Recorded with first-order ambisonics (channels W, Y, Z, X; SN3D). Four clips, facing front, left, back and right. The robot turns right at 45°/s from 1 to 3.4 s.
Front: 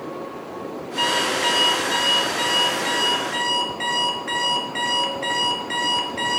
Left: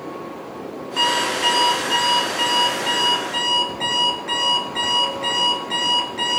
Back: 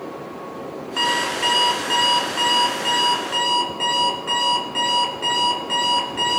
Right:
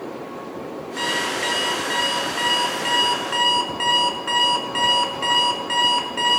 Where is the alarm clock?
140° left, 5 m; by 6.4 s 110° right, 5 m.